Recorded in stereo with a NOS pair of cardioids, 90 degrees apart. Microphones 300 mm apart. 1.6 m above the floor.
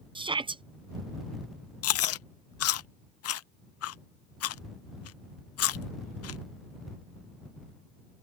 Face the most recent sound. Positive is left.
turn(degrees=55)